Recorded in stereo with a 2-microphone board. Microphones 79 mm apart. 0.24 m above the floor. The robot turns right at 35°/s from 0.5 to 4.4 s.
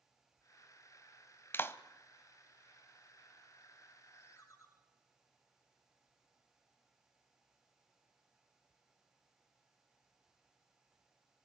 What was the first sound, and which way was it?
A clap, 30° left (ahead or behind).